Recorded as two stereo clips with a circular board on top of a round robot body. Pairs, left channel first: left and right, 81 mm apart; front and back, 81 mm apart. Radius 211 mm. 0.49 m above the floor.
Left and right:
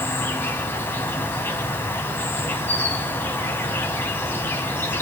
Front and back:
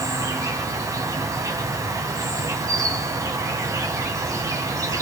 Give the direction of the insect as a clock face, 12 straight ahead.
7 o'clock.